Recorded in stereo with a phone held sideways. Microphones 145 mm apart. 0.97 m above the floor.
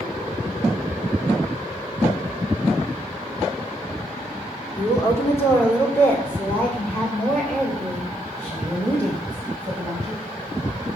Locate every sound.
4.8 s a woman speaking: 20° left (ahead or behind), 2 m; by 10.2 s 5° left (ahead or behind), 6 m